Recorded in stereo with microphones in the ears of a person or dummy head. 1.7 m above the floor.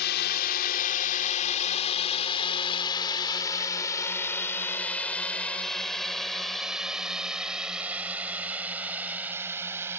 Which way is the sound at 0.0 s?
50° left (ahead or behind).